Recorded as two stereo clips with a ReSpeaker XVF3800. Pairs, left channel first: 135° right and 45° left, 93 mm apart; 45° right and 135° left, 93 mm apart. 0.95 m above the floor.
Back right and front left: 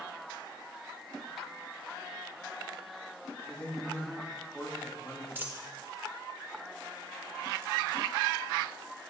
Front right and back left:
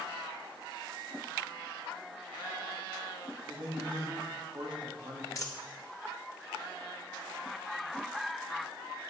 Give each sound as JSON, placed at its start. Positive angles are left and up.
{"t": 3.5, "sound": "a man speaking", "azimuth_deg": 155, "distance_m": 1.6}
{"t": 5.3, "sound": "a dropped coin", "azimuth_deg": -15, "distance_m": 0.7}